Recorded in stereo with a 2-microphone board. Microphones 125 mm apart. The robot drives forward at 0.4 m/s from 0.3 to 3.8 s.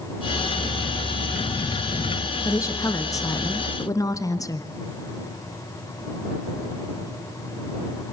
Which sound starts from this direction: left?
A woman speaking, at 2.5 s.